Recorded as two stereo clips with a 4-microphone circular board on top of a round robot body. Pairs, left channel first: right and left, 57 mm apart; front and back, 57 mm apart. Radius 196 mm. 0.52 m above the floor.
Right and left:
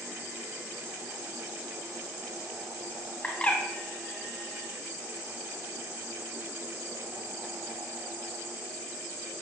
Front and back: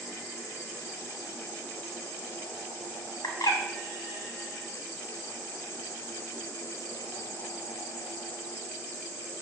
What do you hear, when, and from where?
3.2 s a bird: 20° right, 1.8 m